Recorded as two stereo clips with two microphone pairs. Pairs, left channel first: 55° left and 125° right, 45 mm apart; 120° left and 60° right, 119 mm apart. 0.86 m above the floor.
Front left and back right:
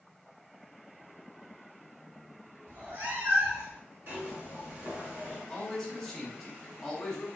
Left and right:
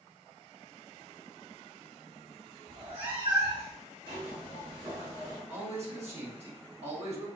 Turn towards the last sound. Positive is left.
turn(degrees=-30)